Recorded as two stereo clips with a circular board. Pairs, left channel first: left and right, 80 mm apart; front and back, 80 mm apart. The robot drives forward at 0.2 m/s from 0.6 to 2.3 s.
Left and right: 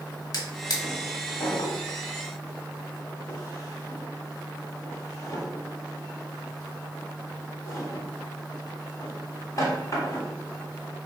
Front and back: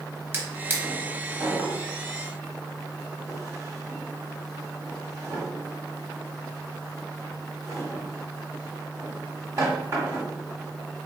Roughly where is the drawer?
Behind left.